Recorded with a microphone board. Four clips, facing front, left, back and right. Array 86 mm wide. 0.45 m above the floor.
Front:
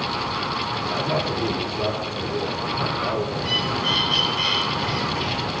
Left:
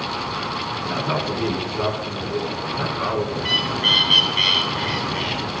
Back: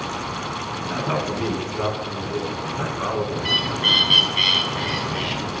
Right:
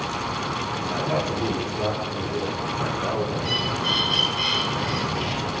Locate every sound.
0.9 s a man speaking: 125° left, 4 m
3.4 s a bird: 130° left, 2.5 m